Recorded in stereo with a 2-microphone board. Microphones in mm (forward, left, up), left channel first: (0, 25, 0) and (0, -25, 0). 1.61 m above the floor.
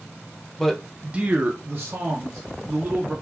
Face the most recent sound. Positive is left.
turn(degrees=-50)  # may be behind; listen again after turning